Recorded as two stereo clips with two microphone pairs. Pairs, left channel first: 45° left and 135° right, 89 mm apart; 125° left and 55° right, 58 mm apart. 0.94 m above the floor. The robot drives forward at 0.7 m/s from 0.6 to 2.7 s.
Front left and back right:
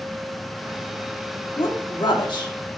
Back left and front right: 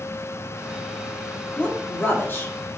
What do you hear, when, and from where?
1.6 s a woman speaking: 60° left, 1.7 m; by 2.5 s 85° left, 1.5 m